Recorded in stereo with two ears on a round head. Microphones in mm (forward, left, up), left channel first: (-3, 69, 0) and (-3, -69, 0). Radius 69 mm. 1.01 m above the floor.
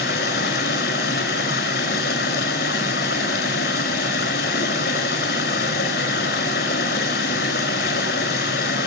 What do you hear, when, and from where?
0.0 s running water: 70° left (ahead or behind), 4 m